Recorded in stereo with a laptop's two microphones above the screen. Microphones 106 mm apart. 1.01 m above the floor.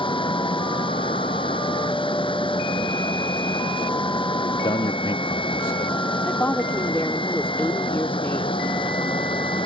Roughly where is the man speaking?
Left.